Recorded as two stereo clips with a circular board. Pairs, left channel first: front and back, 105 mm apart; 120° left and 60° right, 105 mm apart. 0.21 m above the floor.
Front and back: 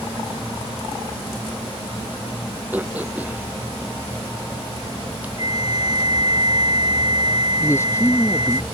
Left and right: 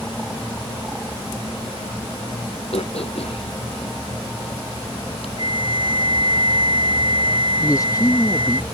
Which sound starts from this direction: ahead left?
A man speaking, at 7.6 s.